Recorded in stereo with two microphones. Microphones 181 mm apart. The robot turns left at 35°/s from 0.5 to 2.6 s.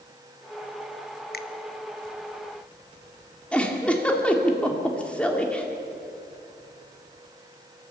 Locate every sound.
1.3 s a finger snap: 60° left (ahead or behind), 1.0 m
3.5 s a giggle: 5° left (ahead or behind), 2 m